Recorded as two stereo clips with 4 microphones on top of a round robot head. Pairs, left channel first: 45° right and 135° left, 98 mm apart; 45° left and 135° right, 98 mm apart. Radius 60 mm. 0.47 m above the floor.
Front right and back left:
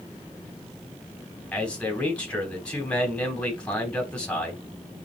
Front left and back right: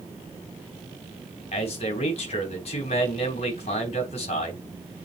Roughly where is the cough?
No cough in this recording.